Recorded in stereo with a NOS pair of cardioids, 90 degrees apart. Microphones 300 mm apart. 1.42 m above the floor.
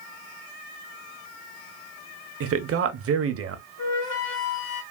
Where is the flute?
70° left, 1.7 m.